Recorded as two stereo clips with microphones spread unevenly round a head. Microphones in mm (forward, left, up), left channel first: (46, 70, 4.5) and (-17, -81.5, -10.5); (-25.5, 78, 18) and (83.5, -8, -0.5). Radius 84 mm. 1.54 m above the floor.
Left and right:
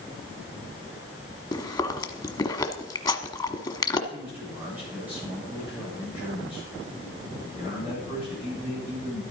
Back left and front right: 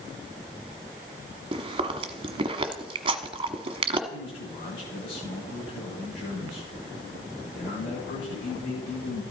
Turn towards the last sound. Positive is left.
turn(degrees=165)